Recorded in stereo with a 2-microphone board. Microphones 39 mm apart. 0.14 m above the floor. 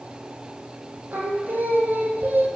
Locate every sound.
1.1 s singing: 65° right (ahead or behind), 2.5 m